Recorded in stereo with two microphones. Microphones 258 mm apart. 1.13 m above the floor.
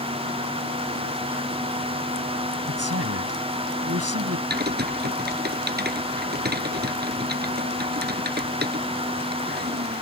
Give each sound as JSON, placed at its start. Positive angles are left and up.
{"t": 2.7, "sound": "a man speaking", "side_deg": -70}
{"t": 4.5, "sound": "typing on a keyboard", "side_deg": -40}